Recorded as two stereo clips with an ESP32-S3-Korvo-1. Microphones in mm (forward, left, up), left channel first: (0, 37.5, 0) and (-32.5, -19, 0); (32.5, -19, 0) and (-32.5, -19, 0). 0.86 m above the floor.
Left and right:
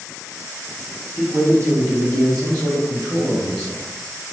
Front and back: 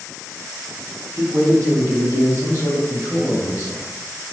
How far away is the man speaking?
About 0.9 m.